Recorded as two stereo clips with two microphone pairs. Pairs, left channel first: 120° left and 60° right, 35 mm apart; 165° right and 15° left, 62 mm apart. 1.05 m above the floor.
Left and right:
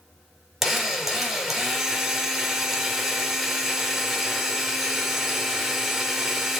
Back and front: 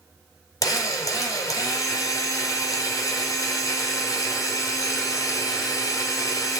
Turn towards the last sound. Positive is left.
turn(degrees=-150)